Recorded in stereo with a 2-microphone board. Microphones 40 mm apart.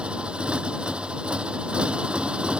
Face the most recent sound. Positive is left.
turn(degrees=-30)  # may be behind; listen again after turning